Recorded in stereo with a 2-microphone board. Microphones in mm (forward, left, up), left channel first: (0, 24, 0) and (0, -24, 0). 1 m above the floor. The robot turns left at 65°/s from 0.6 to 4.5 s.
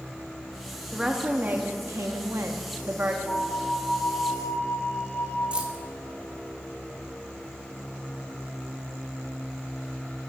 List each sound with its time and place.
0.9 s a woman speaking: 5° right, 1.5 m; by 3.2 s 150° right, 1.5 m
3.3 s a flute: 115° left, 5 m; by 5.4 s 30° left, 5 m
5.5 s keys jangling: 20° right (ahead or behind), 1.4 m